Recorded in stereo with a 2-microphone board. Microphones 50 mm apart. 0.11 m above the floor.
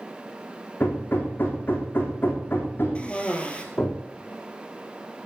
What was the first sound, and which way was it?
Hammering, 45° left (ahead or behind).